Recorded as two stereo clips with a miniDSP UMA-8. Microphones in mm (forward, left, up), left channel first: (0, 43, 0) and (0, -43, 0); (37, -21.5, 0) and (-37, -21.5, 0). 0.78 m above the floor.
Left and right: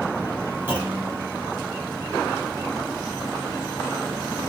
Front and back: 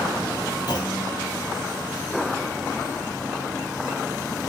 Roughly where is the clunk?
Ahead.